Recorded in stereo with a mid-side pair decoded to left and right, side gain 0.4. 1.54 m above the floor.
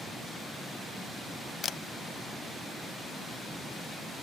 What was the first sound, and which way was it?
A camera shutter, 60° left.